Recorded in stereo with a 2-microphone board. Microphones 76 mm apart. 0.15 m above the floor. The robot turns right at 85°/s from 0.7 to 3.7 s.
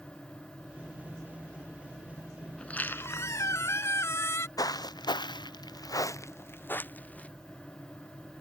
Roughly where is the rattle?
I don't hear a rattle.